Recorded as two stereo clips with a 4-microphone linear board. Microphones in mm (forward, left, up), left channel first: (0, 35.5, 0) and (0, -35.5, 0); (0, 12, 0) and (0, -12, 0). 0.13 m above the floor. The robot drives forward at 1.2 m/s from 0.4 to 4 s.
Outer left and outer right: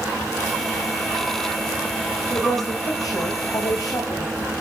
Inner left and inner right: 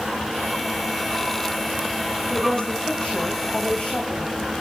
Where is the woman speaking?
55° left (ahead or behind), 9.5 m; by 4.3 s 50° left (ahead or behind), 11 m.